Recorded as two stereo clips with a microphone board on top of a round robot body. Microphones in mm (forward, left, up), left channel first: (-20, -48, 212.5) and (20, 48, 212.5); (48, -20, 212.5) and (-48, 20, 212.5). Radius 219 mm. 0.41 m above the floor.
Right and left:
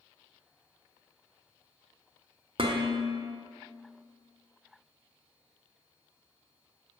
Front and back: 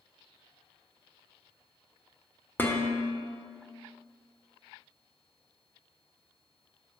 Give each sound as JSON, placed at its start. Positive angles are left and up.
{"t": 2.6, "sound": "dishes clattering", "azimuth_deg": 50, "distance_m": 1.2}